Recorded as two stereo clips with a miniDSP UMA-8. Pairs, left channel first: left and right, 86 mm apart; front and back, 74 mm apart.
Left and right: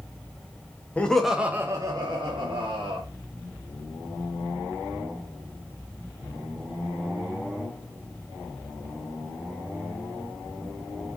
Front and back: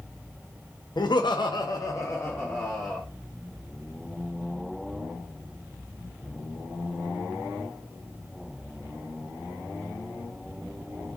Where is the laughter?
15° left, 0.5 m; by 3.0 s 75° right, 1.0 m.